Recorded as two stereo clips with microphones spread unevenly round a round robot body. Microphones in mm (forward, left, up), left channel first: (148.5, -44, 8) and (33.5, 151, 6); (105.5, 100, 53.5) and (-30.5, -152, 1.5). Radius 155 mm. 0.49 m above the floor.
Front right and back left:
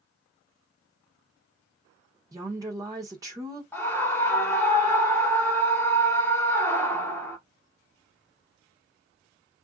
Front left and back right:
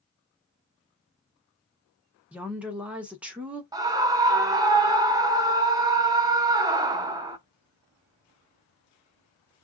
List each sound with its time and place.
2.3 s a woman speaking: straight behind, 0.9 m
3.7 s a scream: 130° right, 0.7 m